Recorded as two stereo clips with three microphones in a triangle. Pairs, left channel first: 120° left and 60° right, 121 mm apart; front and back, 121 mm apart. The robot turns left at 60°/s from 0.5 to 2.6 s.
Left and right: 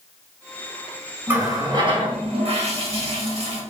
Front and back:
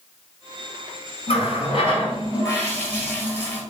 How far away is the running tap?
About 1.3 m.